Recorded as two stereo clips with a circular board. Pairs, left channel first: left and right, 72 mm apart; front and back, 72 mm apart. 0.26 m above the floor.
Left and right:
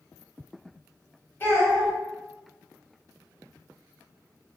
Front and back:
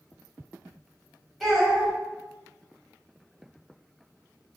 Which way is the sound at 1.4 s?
85° left.